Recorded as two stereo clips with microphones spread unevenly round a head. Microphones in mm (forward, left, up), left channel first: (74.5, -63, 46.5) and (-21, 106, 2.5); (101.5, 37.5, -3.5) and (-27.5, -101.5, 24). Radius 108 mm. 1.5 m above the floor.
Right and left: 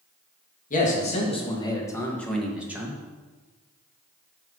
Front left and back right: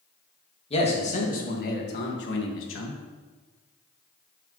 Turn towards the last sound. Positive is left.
turn(degrees=45)